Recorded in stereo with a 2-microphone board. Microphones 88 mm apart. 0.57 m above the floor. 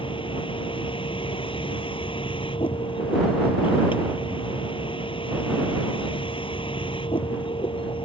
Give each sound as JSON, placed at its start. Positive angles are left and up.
{"t": 0.0, "sound": "a vehicle", "side_deg": 85}